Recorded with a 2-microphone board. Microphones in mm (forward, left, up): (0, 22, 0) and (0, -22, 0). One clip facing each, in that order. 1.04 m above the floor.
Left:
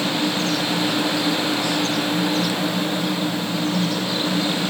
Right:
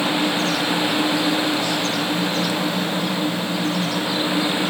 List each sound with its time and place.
Only background noise.